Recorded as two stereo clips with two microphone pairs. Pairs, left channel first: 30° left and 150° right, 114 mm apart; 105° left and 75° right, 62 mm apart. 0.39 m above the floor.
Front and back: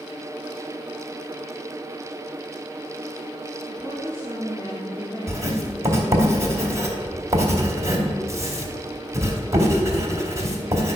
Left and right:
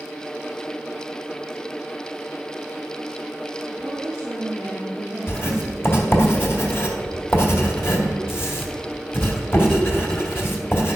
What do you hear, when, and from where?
3.7 s a woman speaking: 10° right, 2.5 m; by 6.3 s 25° left, 1.2 m
5.3 s writing: 150° left, 2 m